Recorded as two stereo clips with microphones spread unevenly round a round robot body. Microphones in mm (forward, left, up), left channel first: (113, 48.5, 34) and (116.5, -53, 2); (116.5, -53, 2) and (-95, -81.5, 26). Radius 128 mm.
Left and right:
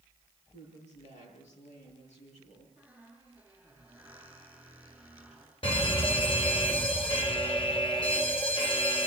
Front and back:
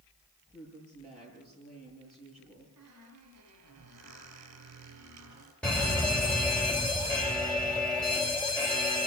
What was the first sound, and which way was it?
A woman speaking, 100° left.